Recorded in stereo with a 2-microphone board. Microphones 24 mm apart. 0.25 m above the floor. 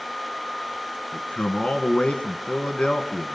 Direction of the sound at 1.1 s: 40° left (ahead or behind).